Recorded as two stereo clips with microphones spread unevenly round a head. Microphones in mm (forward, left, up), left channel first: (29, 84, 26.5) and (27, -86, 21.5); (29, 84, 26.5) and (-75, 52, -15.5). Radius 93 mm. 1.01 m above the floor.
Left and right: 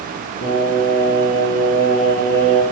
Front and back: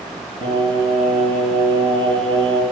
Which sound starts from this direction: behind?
Singing, at 0.4 s.